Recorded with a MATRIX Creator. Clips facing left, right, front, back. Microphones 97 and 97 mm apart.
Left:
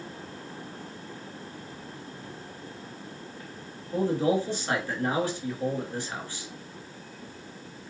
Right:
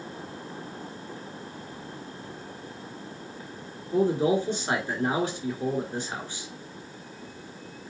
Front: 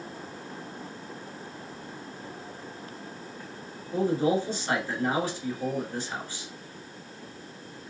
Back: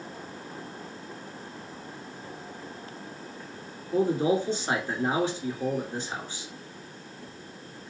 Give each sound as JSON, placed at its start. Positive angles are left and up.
{"t": 3.9, "sound": "a man speaking", "azimuth_deg": -135, "distance_m": 1.6}